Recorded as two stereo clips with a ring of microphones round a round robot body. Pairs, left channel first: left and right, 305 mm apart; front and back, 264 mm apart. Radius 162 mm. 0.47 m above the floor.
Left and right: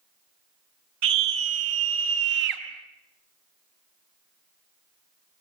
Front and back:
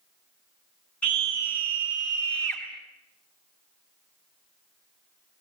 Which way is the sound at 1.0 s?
85° right.